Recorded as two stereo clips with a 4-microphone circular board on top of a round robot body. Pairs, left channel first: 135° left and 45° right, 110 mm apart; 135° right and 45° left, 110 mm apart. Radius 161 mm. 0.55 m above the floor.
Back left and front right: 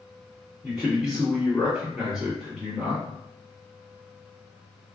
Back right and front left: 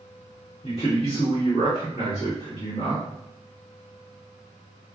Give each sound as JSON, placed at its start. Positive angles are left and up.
{"t": 0.6, "sound": "a man speaking", "azimuth_deg": -130, "distance_m": 1.9}